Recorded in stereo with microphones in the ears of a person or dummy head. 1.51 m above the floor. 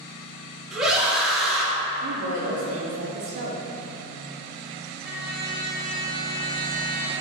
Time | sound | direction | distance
0.7 | a scream | 5° right (ahead or behind) | 0.9 m
2.0 | a woman speaking | 55° right (ahead or behind) | 0.5 m
5.0 | a trumpet | 55° left (ahead or behind) | 1.3 m